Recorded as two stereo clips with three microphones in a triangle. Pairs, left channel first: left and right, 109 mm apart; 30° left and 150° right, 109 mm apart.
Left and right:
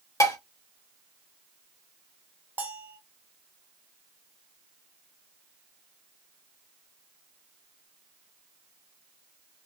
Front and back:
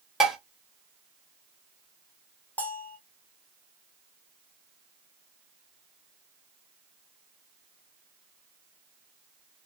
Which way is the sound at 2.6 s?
30° right.